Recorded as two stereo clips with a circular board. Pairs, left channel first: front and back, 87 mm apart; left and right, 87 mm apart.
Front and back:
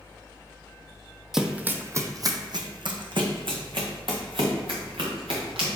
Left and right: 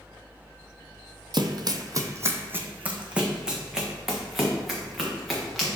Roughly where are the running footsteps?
Right.